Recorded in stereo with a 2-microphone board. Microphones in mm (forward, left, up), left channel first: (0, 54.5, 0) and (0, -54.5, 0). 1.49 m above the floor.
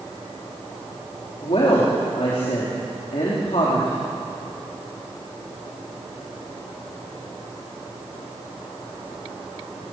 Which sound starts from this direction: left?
A woman speaking, at 1.4 s.